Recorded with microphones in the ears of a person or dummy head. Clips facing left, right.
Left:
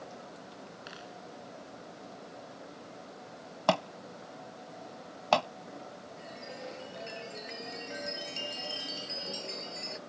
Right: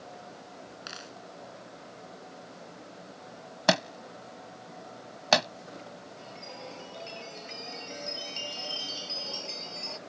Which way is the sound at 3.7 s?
25° right (ahead or behind).